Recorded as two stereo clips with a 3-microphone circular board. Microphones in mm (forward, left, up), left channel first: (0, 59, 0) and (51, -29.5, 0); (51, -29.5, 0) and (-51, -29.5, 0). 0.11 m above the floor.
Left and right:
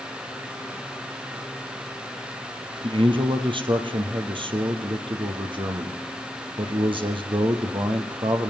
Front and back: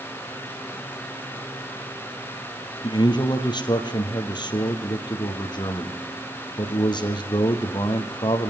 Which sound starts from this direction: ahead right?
A man speaking, at 2.8 s.